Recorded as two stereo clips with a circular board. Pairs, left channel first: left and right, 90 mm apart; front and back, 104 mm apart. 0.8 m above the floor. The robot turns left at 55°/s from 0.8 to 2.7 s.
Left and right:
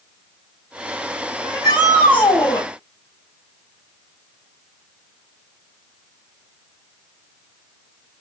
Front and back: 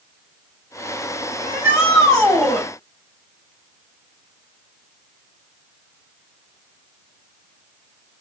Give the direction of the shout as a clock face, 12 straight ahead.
7 o'clock.